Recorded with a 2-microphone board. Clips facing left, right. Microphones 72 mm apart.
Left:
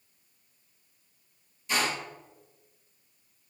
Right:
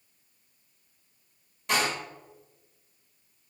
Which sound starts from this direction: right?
A door slam, at 1.7 s.